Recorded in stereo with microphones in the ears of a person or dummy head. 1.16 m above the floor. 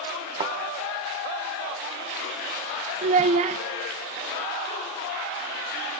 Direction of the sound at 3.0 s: 40° right (ahead or behind).